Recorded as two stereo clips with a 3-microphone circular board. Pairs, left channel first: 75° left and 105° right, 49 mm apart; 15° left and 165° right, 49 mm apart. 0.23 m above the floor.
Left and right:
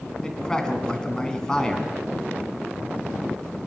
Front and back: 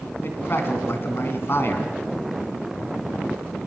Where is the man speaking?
Straight ahead, 2.5 m.